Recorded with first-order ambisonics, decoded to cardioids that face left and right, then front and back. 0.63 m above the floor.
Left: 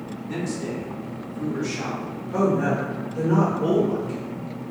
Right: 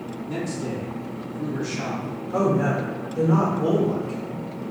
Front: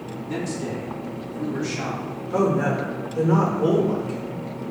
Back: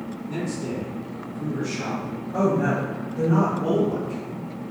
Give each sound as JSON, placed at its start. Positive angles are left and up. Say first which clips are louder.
{"t": 0.3, "sound": "a man speaking", "louder": "even, front 1 dB", "azimuth_deg": 25, "distance_m": 1.6}
{"t": 2.3, "sound": "a woman speaking", "louder": "even, front 1 dB", "azimuth_deg": 10, "distance_m": 1.8}